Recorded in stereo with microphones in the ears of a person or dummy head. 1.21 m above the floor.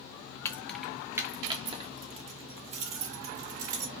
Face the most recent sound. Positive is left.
turn(degrees=-45)  # may be behind; listen again after turning